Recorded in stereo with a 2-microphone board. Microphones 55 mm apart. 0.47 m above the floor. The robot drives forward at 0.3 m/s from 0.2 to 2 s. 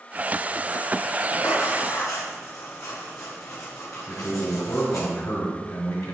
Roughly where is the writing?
Left.